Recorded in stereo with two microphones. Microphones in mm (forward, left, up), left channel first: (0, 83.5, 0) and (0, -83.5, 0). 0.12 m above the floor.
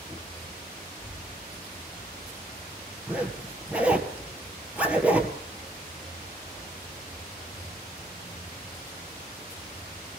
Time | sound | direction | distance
1.0 | a child speaking | 40° left (ahead or behind) | 8 m
3.1 | a zipper | 10° right (ahead or behind) | 1.9 m